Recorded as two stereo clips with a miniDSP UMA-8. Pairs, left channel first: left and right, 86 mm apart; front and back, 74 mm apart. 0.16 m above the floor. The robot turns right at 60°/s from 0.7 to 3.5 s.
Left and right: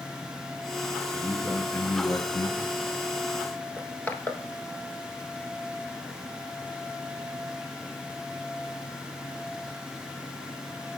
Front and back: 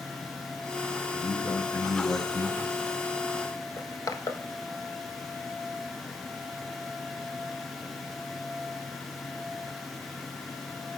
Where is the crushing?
25° left, 0.7 m.